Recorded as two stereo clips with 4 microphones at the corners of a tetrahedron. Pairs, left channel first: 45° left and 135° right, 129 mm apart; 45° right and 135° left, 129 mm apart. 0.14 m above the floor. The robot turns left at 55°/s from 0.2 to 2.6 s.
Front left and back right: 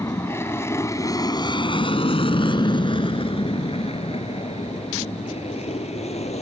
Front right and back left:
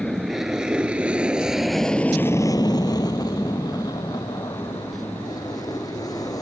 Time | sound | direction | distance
0.0 | an aircraft | 35° left | ?